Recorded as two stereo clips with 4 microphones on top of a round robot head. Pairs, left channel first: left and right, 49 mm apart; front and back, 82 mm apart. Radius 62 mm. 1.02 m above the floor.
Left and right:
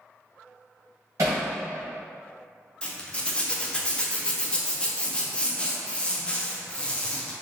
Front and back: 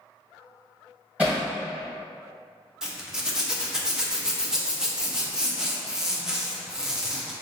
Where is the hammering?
100° right, 1.9 m.